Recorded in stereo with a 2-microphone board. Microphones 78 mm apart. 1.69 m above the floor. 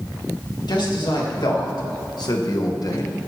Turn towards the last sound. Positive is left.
turn(degrees=45)  # may be behind; listen again after turning